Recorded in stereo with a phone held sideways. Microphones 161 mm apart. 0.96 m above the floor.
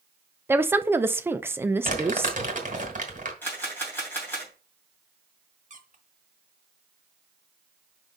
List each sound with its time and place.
0.5 s a woman speaking: 15° right (ahead or behind), 0.5 m
1.9 s crumpling: 50° right (ahead or behind), 2 m
3.4 s a camera shutter: 10° left (ahead or behind), 3 m
5.7 s a squeak: 50° right (ahead or behind), 1.1 m